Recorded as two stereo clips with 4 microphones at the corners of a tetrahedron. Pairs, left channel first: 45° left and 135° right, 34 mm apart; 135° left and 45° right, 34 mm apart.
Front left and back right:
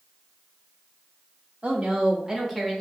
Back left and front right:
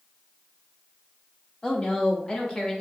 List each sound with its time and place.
1.6 s a woman speaking: 175° right, 0.9 m; by 2.8 s 105° left, 0.7 m